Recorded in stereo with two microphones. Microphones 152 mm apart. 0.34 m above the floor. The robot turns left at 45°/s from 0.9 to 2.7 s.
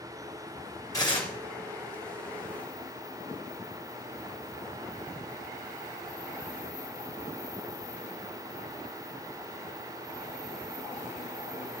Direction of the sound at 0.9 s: 25° left (ahead or behind).